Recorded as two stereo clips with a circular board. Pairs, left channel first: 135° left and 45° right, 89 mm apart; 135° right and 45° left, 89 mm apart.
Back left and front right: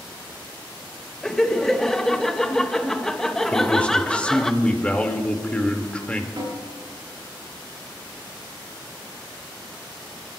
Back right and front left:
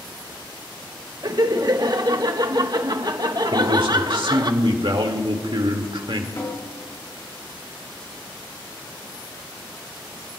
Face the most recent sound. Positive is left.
turn(degrees=-85)